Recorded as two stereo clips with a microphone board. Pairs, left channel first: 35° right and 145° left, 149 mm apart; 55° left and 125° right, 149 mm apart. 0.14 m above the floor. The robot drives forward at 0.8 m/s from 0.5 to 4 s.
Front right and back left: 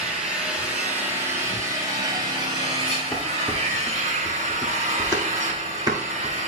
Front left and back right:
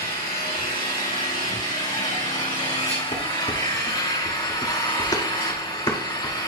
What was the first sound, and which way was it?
An engine running, 65° left.